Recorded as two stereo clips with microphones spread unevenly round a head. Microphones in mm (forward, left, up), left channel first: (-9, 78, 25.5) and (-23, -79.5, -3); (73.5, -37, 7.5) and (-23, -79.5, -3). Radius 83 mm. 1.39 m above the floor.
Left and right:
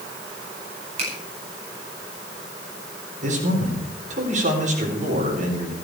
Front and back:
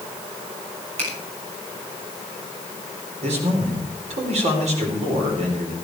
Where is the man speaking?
140° right, 4 m.